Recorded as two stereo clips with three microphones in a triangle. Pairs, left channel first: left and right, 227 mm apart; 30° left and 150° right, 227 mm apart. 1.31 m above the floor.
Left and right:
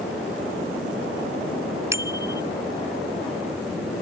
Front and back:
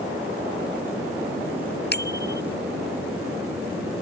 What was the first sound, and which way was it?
A bicycle bell, 10° right.